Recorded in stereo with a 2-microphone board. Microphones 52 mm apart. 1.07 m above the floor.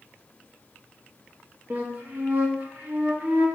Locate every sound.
1.7 s a flute: 40° right (ahead or behind), 1.4 m